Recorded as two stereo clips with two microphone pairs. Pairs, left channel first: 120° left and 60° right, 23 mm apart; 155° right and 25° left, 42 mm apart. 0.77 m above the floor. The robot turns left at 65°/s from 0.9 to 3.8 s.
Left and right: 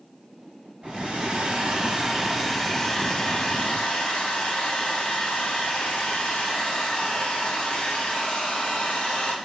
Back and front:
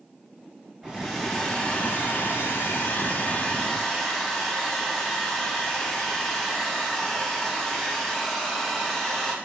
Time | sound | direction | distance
0.8 | a hair dryer | 45° right | 1.5 m